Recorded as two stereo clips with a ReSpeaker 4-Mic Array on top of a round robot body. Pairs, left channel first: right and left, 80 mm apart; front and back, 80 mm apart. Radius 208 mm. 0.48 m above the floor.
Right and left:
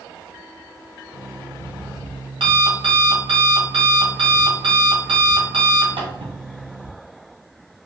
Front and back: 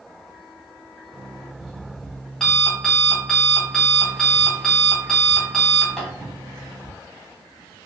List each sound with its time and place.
1.1 s an alarm clock: 80° left, 1.6 m